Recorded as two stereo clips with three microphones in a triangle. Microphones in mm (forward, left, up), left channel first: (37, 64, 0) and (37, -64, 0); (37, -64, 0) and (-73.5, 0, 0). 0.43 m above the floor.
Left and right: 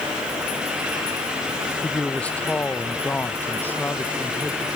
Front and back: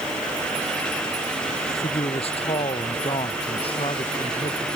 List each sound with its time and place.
1.7 s a man speaking: 10° left; by 4.7 s 15° left